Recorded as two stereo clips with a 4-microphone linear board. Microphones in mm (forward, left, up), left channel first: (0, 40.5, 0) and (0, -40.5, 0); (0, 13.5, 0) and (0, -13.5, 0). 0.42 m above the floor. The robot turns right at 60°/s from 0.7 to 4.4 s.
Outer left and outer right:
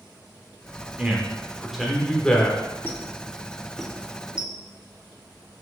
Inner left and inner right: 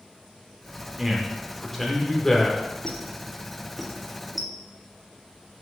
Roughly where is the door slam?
No door slam in this recording.